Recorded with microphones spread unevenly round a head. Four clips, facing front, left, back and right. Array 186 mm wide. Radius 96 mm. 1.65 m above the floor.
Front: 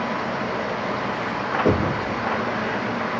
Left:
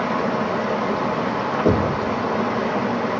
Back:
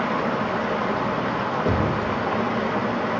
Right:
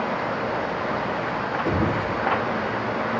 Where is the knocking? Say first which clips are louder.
Left 5 dB, front 4 dB; 55° left, 2.5 m.